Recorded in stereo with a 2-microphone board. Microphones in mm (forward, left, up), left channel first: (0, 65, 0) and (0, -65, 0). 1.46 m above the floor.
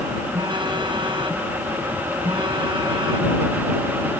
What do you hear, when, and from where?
0.3 s a phone buzzing: 40° right (ahead or behind)